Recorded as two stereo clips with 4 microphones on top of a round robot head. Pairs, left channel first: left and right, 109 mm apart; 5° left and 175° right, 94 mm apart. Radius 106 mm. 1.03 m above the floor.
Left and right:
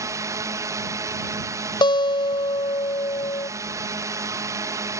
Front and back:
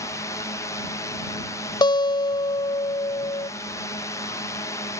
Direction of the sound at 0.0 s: 40° right.